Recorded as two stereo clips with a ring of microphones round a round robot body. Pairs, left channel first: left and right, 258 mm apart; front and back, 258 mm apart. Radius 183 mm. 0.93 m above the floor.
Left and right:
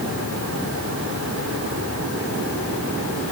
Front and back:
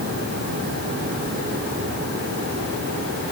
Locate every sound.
Only background noise.